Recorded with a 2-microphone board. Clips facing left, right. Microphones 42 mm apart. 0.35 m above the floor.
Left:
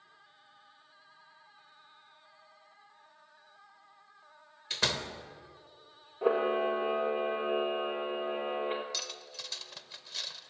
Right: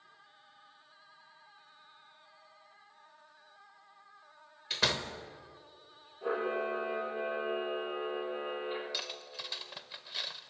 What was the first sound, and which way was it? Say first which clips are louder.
A door slam: right 1 dB; 5° right (ahead or behind).